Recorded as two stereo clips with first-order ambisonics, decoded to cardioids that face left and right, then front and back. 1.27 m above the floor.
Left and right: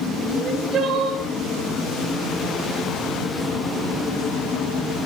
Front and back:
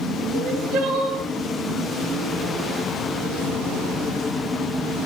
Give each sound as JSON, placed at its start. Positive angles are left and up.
{"t": 0.3, "sound": "crying", "azimuth_deg": -155, "distance_m": 4.0}